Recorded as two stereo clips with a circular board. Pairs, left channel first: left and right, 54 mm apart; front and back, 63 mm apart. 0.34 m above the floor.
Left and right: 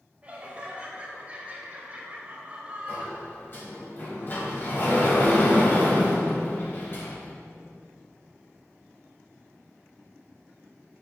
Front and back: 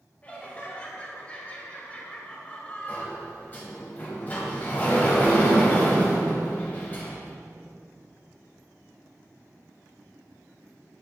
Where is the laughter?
50° right, 1.5 m.